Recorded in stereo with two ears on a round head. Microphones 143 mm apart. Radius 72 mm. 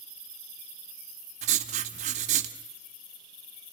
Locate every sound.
1.4 s writing: 45° right (ahead or behind), 1.7 m